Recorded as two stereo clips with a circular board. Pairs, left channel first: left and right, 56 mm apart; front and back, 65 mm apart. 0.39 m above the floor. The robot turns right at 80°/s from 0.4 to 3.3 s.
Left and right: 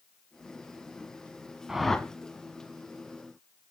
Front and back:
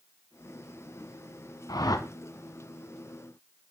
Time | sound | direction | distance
1.7 | a whoosh | 10° right | 0.7 m